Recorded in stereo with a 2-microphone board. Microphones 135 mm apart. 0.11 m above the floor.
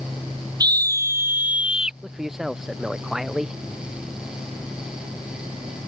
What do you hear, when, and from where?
0.6 s a scream: 30° right (ahead or behind); by 1.9 s 5° right (ahead or behind)
2.0 s a man speaking: 5° right (ahead or behind)